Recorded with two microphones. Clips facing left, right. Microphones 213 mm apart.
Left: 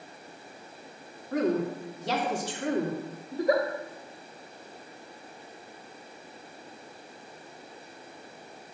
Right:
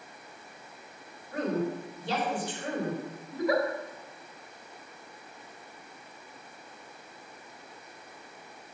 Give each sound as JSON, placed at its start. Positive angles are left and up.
{"t": 1.3, "sound": "a woman speaking", "side_deg": 85, "distance_m": 2.0}
{"t": 3.3, "sound": "a giggle", "side_deg": 40, "distance_m": 1.7}